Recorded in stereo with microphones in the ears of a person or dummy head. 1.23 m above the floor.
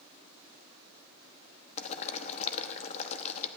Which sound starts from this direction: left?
Boiling, at 1.8 s.